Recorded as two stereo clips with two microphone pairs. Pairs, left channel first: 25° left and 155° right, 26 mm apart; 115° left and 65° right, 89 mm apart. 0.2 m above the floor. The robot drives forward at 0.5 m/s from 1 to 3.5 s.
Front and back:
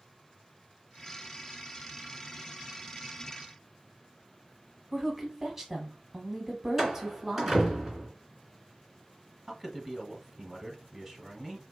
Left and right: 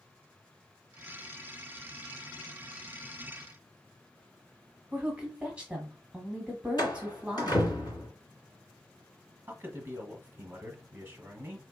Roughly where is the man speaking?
Right.